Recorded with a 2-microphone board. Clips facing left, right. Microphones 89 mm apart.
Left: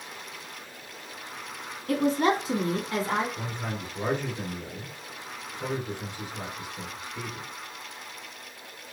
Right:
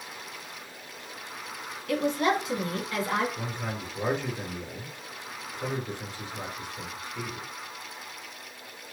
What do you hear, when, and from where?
1.9 s a woman speaking: 40° left (ahead or behind), 1.7 m; by 3.3 s 30° left (ahead or behind), 1.9 m
3.4 s a man speaking: 10° left (ahead or behind), 2 m